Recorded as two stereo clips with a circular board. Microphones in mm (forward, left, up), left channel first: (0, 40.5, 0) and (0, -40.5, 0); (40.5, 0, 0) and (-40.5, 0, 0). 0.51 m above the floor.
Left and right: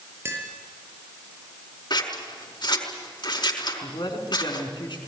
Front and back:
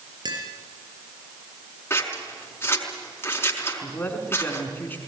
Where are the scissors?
60° left, 4.5 m.